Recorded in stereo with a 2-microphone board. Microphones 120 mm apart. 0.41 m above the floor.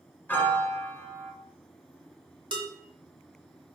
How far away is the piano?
About 0.6 m.